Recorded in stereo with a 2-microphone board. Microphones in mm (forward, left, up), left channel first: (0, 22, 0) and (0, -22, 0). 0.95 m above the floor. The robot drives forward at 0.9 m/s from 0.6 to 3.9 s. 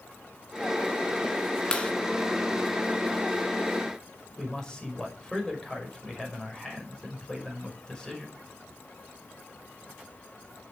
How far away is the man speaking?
About 5.5 m.